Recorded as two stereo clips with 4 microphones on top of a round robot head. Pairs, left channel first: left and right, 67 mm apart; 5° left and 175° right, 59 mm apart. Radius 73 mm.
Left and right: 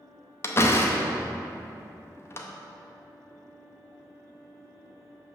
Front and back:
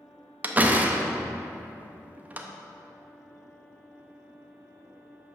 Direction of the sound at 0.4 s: 130° left.